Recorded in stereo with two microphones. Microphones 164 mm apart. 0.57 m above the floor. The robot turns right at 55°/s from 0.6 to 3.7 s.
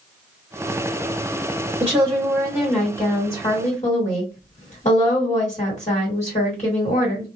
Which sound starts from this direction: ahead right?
A woman speaking, at 1.8 s.